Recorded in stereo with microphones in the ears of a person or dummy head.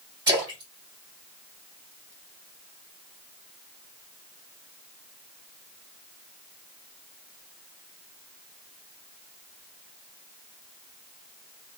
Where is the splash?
15° right (ahead or behind), 3 m.